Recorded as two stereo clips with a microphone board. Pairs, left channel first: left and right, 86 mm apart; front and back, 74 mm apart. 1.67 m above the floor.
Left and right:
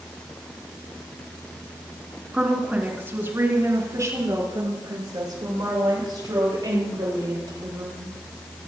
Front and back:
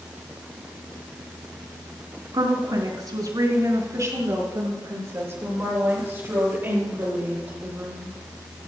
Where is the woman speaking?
165° right, 3.5 m; by 8.2 s 115° right, 9.5 m.